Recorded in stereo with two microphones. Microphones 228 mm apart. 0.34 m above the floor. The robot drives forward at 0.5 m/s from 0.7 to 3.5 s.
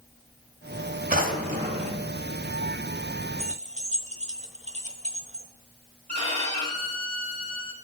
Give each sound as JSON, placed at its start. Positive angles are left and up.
{"t": 1.1, "sound": "a drawer", "side_deg": -40, "distance_m": 1.1}
{"t": 3.4, "sound": "keys jangling", "side_deg": -30, "distance_m": 0.9}
{"t": 6.1, "sound": "a violin", "side_deg": -30, "distance_m": 1.7}